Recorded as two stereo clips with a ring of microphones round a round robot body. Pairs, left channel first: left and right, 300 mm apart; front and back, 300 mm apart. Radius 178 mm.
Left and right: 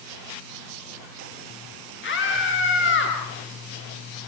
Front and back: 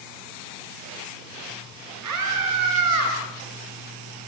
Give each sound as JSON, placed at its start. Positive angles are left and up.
{"t": 2.0, "sound": "a scream", "azimuth_deg": 140, "distance_m": 8.0}